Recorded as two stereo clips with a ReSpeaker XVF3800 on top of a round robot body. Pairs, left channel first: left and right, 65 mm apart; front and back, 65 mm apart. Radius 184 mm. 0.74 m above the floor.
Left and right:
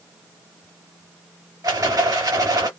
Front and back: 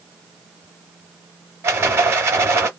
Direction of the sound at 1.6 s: 135° right.